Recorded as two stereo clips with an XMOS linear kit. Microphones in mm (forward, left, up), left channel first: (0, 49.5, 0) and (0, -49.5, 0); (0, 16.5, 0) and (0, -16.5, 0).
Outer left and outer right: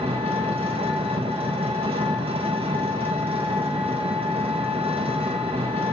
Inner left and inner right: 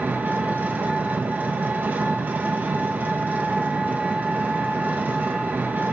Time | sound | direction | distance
0.0 | an engine running | 70° right (ahead or behind) | 1.7 m